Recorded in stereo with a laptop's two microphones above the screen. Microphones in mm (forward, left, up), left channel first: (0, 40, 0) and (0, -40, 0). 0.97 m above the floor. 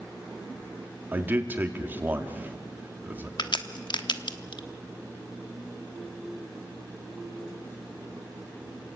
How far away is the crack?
About 1.0 m.